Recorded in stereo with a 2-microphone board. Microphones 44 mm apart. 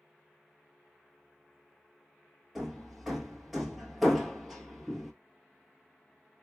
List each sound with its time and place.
2.5 s hammering: centre (ahead or behind), 1.1 m